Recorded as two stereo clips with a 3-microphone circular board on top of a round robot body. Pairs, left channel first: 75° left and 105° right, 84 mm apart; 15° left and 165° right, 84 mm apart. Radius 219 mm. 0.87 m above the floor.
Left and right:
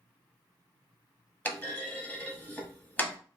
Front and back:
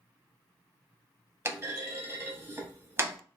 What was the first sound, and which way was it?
A clunk, 140° left.